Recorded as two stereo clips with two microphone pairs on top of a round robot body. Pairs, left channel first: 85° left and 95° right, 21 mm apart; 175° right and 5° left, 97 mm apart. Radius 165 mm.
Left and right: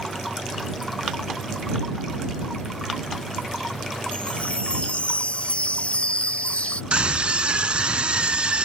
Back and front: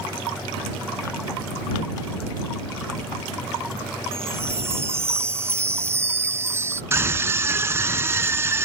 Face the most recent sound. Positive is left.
turn(degrees=-60)